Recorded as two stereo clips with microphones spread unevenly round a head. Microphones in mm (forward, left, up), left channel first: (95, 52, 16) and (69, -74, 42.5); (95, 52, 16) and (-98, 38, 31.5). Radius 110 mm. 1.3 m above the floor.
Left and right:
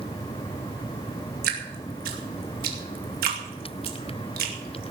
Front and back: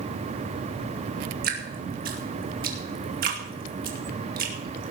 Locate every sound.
1.4 s dripping: 125° right, 2.5 m